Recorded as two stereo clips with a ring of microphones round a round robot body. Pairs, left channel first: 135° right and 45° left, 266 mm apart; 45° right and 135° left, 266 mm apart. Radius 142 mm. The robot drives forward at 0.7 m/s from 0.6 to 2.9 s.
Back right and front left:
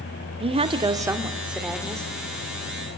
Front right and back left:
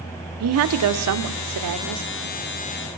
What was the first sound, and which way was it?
A woman speaking, 115° left.